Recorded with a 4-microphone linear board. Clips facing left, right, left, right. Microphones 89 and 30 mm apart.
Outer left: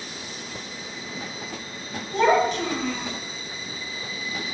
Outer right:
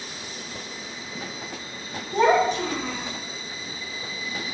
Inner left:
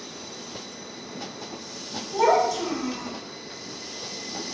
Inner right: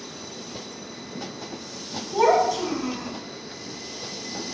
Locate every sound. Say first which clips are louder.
2.1 s a child speaking: even, inner right 1 dB; 20° right (ahead or behind), 0.7 m